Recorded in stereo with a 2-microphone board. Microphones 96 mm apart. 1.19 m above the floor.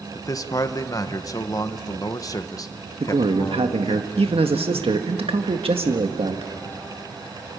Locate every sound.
0.1 s a man speaking: 40° left (ahead or behind), 1.2 m
3.0 s a man speaking: 80° right, 1.7 m